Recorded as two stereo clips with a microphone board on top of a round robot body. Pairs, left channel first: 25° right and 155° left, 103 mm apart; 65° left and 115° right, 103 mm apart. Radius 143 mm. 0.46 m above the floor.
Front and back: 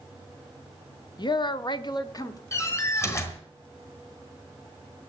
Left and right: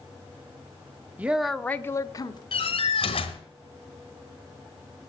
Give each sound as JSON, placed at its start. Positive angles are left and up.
{"t": 1.2, "sound": "a woman speaking", "azimuth_deg": -45, "distance_m": 1.1}
{"t": 2.5, "sound": "a door slam", "azimuth_deg": 40, "distance_m": 2.5}